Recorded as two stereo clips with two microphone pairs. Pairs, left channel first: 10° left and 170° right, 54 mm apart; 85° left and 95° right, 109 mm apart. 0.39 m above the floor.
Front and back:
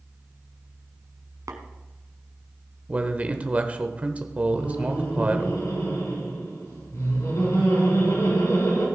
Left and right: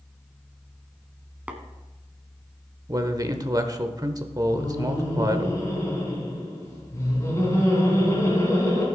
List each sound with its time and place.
1.5 s tapping: 170° right, 1.2 m
2.9 s a man speaking: 120° right, 1.0 m
4.5 s laughter: 20° left, 3.5 m